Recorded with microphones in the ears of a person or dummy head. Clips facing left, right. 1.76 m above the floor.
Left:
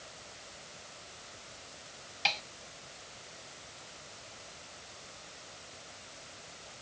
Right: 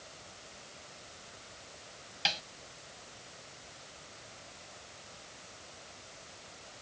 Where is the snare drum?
10° right (ahead or behind).